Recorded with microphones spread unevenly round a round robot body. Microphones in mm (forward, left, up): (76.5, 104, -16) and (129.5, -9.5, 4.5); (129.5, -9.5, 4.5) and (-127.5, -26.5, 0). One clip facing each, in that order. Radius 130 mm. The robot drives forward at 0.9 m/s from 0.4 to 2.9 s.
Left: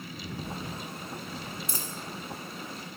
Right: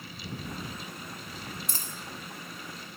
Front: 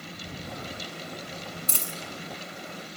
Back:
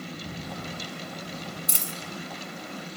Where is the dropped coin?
100° right, 1.1 m; by 1.9 s 115° right, 1.2 m.